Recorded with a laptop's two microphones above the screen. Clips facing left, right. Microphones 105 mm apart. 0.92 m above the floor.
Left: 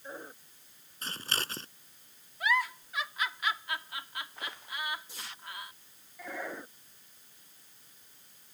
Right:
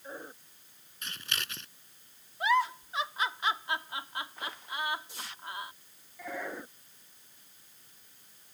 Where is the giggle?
30° right (ahead or behind).